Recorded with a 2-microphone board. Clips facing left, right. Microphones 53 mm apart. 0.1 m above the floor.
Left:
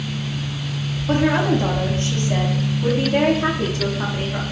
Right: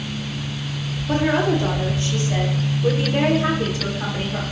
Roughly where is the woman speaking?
Left.